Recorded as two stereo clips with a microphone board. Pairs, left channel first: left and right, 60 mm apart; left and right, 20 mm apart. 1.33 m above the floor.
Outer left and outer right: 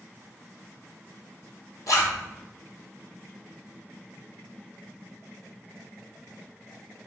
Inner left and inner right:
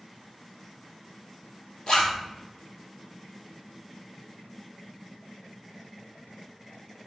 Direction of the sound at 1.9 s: 65° left (ahead or behind).